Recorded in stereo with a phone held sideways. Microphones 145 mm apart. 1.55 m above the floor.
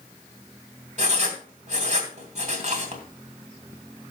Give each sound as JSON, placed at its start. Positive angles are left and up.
{"t": 1.0, "sound": "writing", "side_deg": -50, "distance_m": 2.5}